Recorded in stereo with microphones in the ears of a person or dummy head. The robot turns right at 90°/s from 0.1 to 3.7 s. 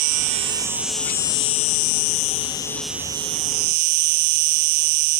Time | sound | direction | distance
0.0 | an insect | 70° right | ?